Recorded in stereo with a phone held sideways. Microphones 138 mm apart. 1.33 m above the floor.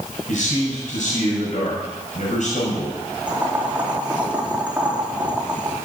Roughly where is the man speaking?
Left.